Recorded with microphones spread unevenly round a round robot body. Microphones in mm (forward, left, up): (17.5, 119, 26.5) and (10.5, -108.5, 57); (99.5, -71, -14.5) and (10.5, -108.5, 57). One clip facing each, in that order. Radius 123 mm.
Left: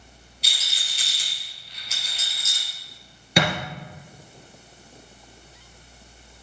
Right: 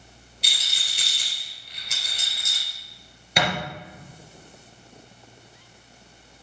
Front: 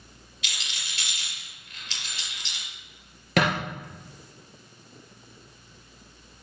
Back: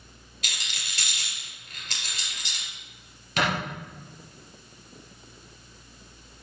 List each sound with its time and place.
0.4 s a rattle: 130° right, 3.5 m
3.4 s a thud: 75° left, 3 m